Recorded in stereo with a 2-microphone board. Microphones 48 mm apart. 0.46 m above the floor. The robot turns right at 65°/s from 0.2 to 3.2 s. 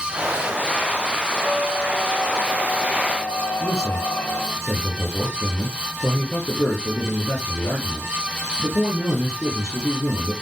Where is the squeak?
85° right, 5.5 m; by 4.6 s 30° left, 5.5 m.